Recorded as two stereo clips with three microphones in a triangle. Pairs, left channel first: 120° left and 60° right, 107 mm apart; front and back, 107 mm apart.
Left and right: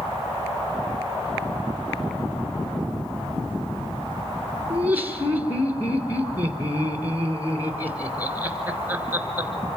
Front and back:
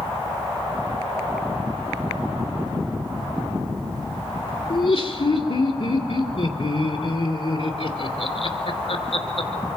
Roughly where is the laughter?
Ahead.